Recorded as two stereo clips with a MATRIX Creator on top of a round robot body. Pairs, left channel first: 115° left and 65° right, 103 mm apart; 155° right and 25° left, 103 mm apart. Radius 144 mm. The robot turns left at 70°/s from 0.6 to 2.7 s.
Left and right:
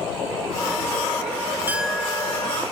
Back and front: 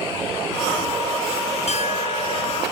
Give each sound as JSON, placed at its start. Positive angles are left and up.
{"t": 1.7, "sound": "a clink", "azimuth_deg": -140}